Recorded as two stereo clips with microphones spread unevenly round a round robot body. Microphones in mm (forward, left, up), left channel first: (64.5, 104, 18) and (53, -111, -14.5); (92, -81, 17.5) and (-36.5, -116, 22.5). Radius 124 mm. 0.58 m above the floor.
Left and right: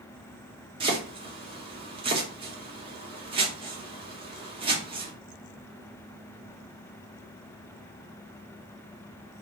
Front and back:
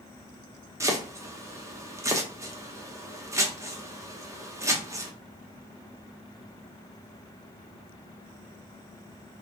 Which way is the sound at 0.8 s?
115° right.